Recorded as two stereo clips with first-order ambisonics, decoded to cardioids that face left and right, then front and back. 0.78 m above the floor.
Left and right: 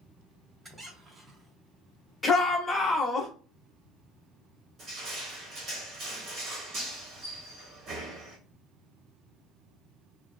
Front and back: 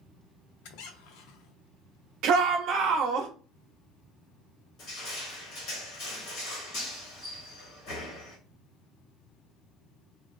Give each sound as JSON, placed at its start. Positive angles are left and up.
{"t": 0.6, "sound": "a squeak", "azimuth_deg": -15, "distance_m": 0.6}
{"t": 2.2, "sound": "a shout", "azimuth_deg": 165, "distance_m": 0.8}
{"t": 4.8, "sound": "crushing", "azimuth_deg": -35, "distance_m": 1.5}